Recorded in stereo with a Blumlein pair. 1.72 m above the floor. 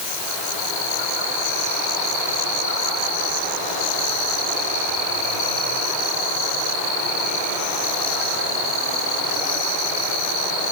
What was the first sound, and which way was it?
Only background noise.